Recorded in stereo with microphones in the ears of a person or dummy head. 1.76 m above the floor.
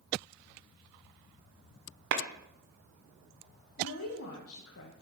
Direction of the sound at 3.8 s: 75° left (ahead or behind).